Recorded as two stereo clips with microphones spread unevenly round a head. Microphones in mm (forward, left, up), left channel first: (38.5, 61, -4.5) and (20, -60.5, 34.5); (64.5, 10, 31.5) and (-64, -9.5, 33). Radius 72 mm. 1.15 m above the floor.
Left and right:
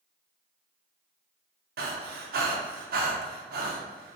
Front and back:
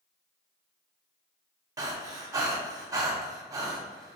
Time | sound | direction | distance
1.8 | breathing | 110° right | 0.6 m